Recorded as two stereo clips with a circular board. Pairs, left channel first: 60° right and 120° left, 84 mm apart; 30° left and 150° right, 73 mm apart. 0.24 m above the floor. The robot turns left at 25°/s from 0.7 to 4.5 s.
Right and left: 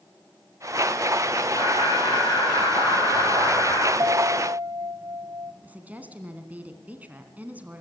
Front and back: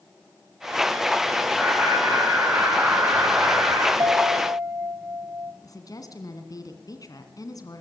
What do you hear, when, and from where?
1.6 s laughter: 50° right, 8 m; by 3.9 s 110° right, 8 m
4.0 s a piano: 165° left, 1.0 m; by 5.5 s 155° left, 1.0 m
5.6 s a woman speaking: 50° left, 2.5 m